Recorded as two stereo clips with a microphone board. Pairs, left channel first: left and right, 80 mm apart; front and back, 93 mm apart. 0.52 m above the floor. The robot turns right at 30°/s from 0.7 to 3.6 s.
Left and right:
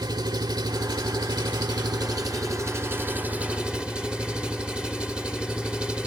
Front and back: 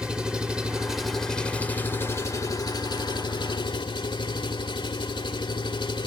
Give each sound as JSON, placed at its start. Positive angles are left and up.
{"t": 0.0, "sound": "an engine running", "azimuth_deg": -100, "distance_m": 1.4}